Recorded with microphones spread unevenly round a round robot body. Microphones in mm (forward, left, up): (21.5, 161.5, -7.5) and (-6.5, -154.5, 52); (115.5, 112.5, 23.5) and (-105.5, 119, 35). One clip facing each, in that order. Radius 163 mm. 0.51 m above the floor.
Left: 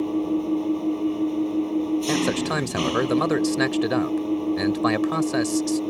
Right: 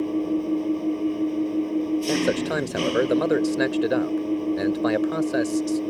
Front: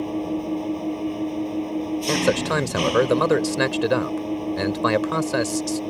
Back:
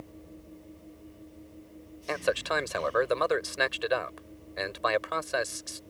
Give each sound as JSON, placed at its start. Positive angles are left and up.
{"t": 0.0, "sound": "an engine running", "azimuth_deg": 0}
{"t": 2.1, "sound": "a man speaking", "azimuth_deg": 20}